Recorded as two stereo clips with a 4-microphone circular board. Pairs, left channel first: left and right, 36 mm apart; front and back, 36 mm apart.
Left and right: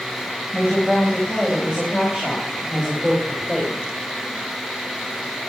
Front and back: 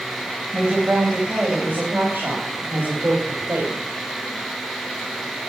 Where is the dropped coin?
I don't hear a dropped coin.